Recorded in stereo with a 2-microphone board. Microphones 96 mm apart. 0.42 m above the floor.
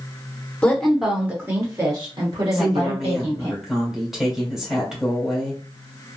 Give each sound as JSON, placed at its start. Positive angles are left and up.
{"t": 0.6, "sound": "a woman speaking", "side_deg": 10, "distance_m": 0.8}
{"t": 2.5, "sound": "a woman speaking", "side_deg": -5, "distance_m": 1.7}